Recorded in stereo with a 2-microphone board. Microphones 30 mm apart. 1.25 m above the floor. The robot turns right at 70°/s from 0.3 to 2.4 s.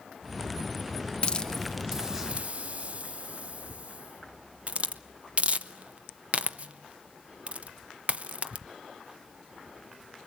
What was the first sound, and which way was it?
A hiss, 35° left (ahead or behind).